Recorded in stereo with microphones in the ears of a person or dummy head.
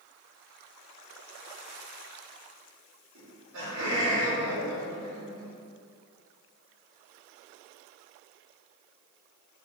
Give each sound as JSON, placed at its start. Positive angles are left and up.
{"t": 3.1, "sound": "laughter", "side_deg": -70, "distance_m": 1.4}